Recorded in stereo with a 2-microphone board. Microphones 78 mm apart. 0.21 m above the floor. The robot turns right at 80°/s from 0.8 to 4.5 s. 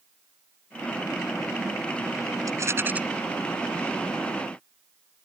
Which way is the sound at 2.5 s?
65° right.